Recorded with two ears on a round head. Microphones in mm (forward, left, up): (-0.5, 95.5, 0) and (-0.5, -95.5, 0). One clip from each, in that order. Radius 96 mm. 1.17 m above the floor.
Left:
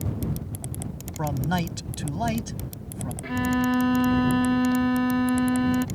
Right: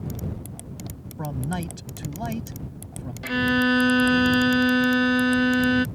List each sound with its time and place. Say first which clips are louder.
1.2 s a man speaking: left 4 dB; 25° left (ahead or behind)
3.2 s a violin: right 4 dB; 80° right